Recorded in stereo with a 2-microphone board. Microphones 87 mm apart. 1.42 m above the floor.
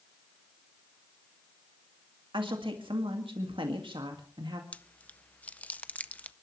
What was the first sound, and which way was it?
A woman speaking, 70° right (ahead or behind).